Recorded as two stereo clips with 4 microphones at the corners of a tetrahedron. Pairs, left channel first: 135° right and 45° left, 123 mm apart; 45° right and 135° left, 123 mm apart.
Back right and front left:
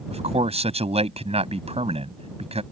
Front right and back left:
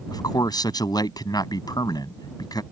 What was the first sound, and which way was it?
A man speaking, 10° left.